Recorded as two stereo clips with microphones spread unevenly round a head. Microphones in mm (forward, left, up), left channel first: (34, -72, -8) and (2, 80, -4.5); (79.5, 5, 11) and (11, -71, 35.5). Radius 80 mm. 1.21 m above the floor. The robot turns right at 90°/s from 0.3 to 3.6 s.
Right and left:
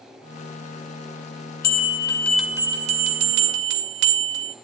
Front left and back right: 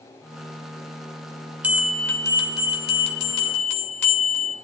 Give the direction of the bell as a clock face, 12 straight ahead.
2 o'clock.